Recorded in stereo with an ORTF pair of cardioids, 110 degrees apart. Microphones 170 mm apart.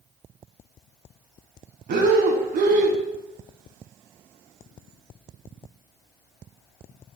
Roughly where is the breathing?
Ahead right.